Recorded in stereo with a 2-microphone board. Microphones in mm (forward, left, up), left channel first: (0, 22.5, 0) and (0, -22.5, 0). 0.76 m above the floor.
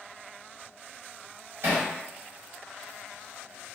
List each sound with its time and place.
1.6 s hammering: 70° right (ahead or behind), 1.2 m